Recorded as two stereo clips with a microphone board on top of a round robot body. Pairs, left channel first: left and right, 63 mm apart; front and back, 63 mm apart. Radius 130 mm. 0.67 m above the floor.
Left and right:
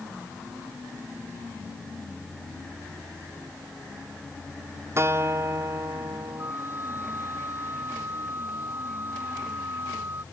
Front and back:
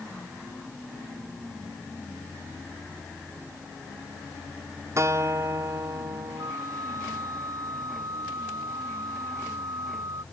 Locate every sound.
5.0 s a guitar: 140° right
6.4 s a flute: 145° right